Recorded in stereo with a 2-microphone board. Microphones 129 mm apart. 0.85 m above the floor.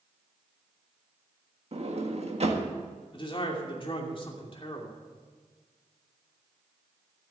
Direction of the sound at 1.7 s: 55° right (ahead or behind).